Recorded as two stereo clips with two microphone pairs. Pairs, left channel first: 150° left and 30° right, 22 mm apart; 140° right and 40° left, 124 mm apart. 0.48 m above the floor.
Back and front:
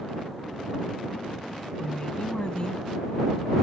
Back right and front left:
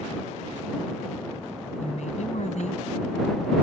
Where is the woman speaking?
165° right.